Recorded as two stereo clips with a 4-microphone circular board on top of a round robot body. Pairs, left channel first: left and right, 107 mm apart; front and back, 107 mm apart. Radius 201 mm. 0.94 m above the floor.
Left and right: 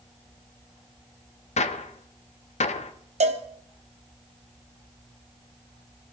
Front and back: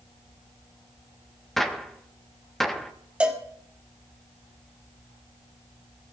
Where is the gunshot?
90° left, 1.1 m.